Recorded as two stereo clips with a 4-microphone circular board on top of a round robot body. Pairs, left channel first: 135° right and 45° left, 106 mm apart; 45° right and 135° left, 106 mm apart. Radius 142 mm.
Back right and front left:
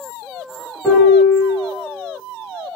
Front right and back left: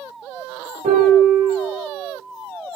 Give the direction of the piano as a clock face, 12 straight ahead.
7 o'clock.